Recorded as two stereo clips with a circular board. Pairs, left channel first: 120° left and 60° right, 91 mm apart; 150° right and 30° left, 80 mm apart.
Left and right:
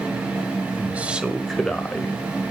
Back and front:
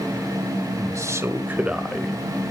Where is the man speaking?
5° left, 2 m; by 2.1 s 140° left, 1.5 m.